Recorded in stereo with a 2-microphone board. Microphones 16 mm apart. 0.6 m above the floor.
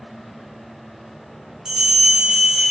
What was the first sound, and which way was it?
A bell, 45° right (ahead or behind).